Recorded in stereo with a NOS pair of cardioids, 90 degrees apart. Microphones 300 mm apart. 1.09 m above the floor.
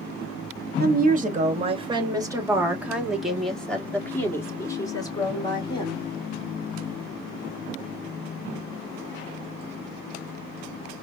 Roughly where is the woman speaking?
Ahead right.